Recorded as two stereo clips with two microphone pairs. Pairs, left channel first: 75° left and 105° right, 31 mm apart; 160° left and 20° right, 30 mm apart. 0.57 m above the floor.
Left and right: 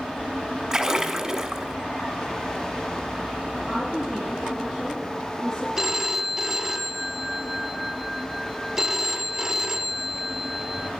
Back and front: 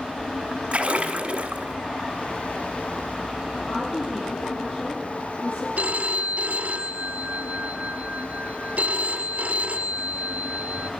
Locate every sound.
0.7 s a splash: 45° right, 1.5 m
3.7 s a woman speaking: 160° left, 5.5 m
5.8 s a phone ringing: 35° right, 1.0 m